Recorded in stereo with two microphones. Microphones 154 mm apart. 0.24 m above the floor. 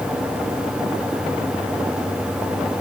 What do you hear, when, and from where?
Only background noise.